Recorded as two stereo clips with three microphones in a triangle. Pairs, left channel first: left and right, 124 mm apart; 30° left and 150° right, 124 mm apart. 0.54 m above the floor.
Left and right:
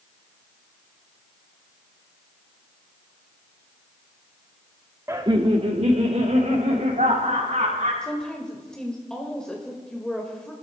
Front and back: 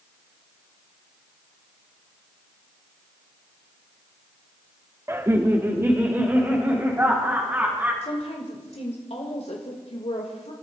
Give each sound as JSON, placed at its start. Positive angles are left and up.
{"t": 5.1, "sound": "laughter", "azimuth_deg": -120, "distance_m": 0.9}
{"t": 8.0, "sound": "a woman speaking", "azimuth_deg": 5, "distance_m": 1.9}